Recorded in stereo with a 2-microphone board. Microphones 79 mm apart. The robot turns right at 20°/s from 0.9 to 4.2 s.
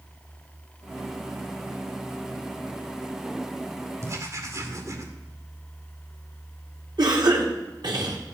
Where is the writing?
40° right (ahead or behind), 2.5 m; by 5.1 s 45° right (ahead or behind), 2.5 m.